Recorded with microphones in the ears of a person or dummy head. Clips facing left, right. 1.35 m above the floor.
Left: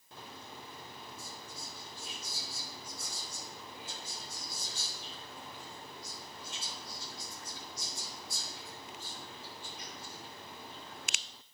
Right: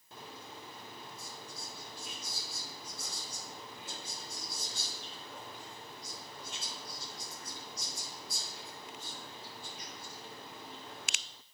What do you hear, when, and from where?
1.2 s whispering: 50° right (ahead or behind), 1.8 m